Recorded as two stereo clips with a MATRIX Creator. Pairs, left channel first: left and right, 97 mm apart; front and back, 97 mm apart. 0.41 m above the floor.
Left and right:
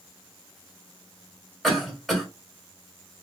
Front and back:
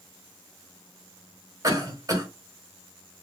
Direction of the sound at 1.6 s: Straight behind.